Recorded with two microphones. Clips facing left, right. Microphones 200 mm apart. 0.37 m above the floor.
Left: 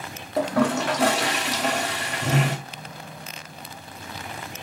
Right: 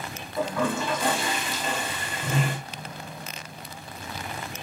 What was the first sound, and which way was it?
A toilet flushing, 75° left (ahead or behind).